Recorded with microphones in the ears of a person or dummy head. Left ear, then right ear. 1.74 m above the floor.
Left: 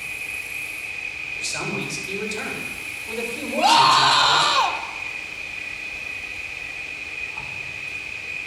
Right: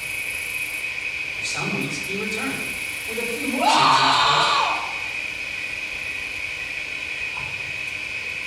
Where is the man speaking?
55° left (ahead or behind), 3.5 m.